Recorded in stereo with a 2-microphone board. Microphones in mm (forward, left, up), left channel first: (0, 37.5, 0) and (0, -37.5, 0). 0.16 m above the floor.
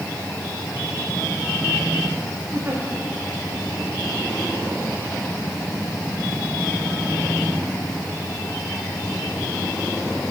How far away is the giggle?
About 6 m.